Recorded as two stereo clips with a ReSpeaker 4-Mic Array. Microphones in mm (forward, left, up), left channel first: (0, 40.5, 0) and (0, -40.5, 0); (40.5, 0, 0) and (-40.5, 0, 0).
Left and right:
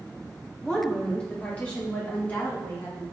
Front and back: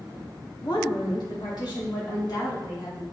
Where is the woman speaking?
10° left, 1.9 m; by 3.0 s 25° left, 3.5 m.